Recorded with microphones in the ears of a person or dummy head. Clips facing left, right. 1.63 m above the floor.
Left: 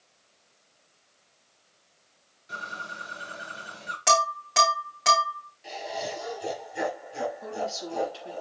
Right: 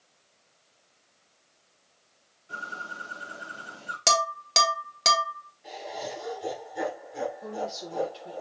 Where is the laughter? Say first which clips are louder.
Left 2 dB; 30° left (ahead or behind), 3.5 m.